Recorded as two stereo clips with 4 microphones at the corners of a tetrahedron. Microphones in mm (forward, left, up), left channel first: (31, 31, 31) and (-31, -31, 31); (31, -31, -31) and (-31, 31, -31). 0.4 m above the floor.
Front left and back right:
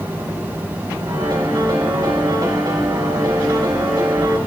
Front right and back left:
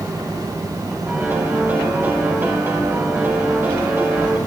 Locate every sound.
1.1 s a piano: 165° right, 2.5 m